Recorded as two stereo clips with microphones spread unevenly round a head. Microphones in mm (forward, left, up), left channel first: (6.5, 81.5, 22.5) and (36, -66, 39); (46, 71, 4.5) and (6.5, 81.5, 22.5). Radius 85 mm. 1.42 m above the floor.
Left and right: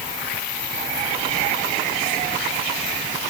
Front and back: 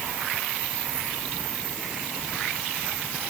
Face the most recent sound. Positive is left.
No sound to turn to.